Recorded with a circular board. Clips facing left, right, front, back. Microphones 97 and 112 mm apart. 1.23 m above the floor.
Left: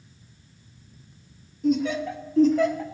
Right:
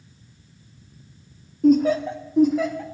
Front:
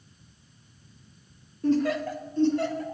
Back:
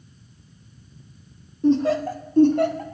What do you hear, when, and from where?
1.6 s laughter: 115° right, 0.8 m; by 2.9 s 175° left, 0.9 m